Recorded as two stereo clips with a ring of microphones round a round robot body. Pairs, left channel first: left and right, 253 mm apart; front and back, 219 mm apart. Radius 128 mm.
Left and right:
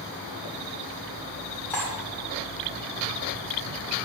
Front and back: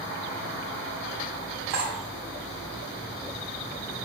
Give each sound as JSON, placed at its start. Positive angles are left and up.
{"t": 1.7, "sound": "cutlery clinking", "azimuth_deg": 175, "distance_m": 1.8}